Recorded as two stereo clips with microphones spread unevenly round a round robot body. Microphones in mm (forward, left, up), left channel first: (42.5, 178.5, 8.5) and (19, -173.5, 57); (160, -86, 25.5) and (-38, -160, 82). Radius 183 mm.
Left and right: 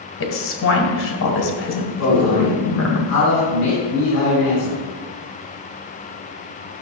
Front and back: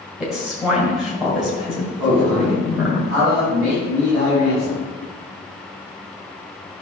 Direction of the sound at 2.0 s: 135° left.